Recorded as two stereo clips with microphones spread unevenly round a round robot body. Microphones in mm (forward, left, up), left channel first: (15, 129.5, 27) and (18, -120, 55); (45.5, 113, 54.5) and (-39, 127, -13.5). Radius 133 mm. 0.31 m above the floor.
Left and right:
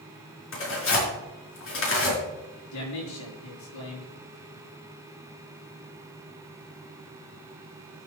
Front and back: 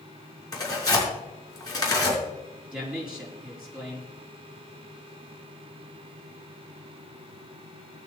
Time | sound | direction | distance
0.5 | tearing paper | 55° left | 5.5 m
2.7 | a man speaking | 100° left | 6 m